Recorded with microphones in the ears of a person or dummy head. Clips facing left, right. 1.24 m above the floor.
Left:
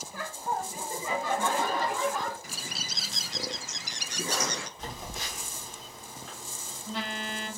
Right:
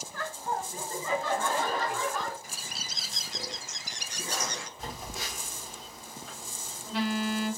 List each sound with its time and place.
0.1 s laughter: 10° left (ahead or behind), 0.8 m; by 2.3 s 15° left (ahead or behind), 2 m
2.4 s a bird: 55° left (ahead or behind), 0.5 m
4.8 s a phone buzzing: 5° right (ahead or behind), 1.8 m